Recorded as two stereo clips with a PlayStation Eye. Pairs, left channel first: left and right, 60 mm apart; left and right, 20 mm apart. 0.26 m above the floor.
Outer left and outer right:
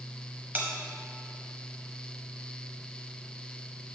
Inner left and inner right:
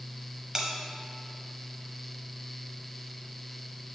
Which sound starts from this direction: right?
A bell, at 0.6 s.